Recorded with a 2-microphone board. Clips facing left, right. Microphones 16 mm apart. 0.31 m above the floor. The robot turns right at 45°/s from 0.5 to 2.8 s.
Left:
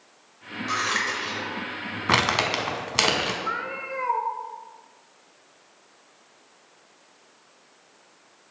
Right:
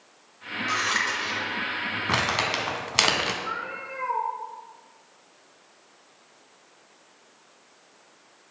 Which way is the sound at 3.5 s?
20° left (ahead or behind).